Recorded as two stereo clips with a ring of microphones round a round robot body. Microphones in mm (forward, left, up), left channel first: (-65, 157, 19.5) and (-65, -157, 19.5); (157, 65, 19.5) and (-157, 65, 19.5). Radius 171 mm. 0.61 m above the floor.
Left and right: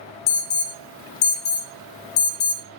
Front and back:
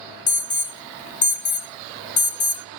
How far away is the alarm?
About 1.6 m.